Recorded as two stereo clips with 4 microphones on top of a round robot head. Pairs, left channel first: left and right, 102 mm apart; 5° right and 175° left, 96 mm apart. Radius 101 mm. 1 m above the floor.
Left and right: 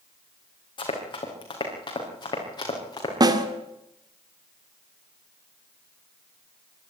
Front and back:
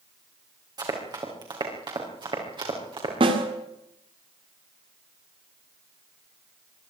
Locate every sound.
0.8 s running footsteps: 130° left, 5 m; by 3.1 s 140° left, 6 m
3.2 s a snare drum: 140° right, 2 m